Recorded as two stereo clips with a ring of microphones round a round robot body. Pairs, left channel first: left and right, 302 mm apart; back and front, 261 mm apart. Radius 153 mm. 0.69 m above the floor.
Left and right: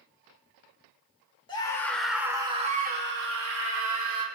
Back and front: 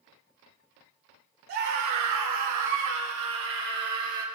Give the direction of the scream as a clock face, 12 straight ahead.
12 o'clock.